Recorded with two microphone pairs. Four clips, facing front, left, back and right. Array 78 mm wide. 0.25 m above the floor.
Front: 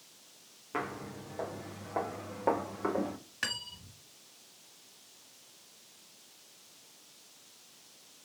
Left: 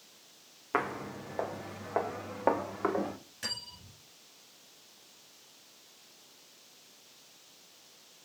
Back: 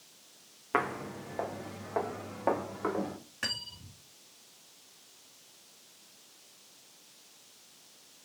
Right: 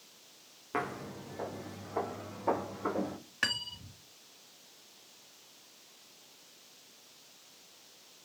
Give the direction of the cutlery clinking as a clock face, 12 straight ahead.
3 o'clock.